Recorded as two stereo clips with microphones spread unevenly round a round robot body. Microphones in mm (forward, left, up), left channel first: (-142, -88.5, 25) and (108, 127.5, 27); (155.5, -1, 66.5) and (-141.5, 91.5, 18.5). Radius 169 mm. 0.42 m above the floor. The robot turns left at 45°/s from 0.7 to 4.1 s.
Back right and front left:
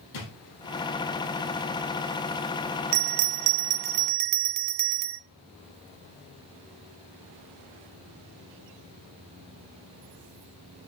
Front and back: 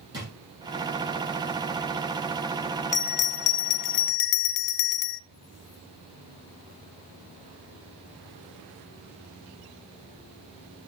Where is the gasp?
I don't hear a gasp.